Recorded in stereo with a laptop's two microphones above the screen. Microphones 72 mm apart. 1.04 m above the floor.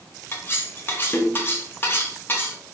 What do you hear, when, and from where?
0.3 s cutlery clinking: 30° left (ahead or behind), 1.1 m